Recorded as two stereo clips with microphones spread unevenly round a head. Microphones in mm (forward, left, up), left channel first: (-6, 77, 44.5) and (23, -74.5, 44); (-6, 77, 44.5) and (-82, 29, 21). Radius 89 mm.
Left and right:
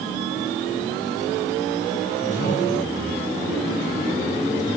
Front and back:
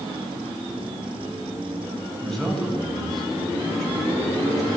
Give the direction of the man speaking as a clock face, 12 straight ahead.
8 o'clock.